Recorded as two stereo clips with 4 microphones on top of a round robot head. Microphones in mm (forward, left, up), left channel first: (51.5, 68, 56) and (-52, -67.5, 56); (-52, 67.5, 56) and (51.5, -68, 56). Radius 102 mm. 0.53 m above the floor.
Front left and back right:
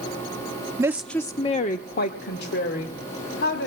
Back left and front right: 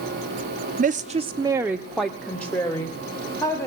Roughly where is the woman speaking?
Ahead right.